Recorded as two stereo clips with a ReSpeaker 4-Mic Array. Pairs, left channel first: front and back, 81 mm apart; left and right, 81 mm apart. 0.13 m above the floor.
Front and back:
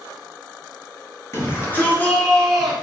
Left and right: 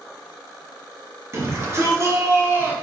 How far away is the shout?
About 2 m.